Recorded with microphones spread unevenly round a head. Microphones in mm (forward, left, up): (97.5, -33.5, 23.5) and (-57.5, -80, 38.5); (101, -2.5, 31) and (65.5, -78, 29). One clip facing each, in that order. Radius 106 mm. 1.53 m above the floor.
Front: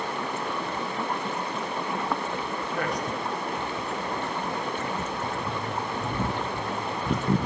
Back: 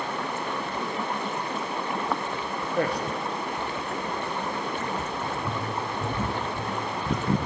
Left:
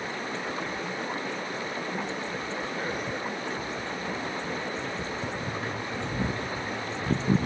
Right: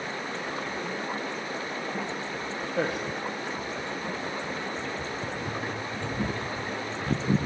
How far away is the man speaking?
About 1.2 m.